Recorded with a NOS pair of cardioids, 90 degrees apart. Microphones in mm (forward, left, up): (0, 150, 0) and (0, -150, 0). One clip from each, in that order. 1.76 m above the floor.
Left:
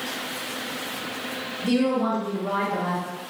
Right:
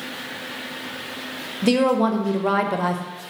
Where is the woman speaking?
55° right, 0.6 m.